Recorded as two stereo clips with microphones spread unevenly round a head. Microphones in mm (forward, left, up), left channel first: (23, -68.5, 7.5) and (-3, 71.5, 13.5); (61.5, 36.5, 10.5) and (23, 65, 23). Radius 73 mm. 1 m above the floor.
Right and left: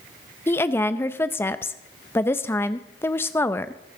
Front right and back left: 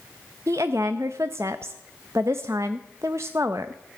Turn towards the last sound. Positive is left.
turn(degrees=-155)